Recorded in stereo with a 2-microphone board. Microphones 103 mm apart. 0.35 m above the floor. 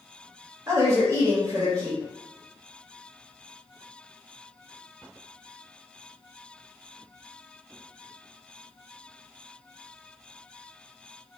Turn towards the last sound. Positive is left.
turn(degrees=-35)  # may be behind; listen again after turning